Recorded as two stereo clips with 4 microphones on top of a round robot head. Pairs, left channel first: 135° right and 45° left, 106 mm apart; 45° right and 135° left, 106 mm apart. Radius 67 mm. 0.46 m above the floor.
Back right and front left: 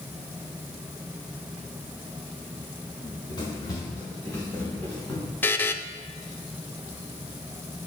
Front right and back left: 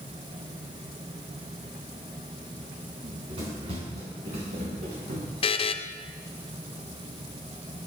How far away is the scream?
I don't hear a scream.